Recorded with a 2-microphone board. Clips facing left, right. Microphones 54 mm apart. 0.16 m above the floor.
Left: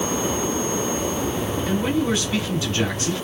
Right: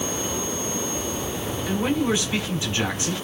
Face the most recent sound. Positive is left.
turn(degrees=-25)  # may be behind; listen again after turning